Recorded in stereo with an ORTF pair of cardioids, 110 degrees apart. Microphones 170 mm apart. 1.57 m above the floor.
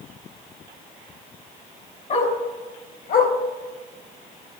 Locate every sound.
2.1 s a dog barking: 50° left, 4.5 m; by 3.3 s 65° left, 3 m